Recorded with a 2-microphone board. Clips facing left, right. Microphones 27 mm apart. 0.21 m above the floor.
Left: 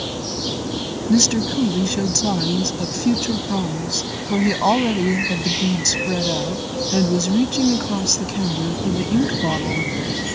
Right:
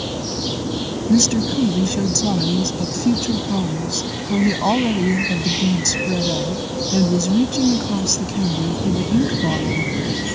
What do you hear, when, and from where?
1.1 s a woman speaking: 15° left (ahead or behind)